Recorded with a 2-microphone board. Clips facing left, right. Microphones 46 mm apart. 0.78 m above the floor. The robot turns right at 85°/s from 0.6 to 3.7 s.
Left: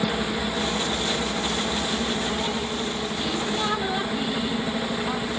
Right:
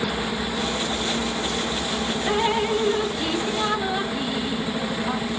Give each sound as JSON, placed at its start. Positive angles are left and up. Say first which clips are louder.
{"t": 2.3, "sound": "dripping", "louder": "right 6 dB", "azimuth_deg": -130}